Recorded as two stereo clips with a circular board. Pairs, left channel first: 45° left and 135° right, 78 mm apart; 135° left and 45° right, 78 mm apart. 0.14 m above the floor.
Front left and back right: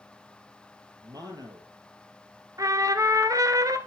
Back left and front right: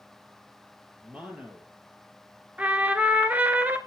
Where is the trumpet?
115° right, 1.1 m.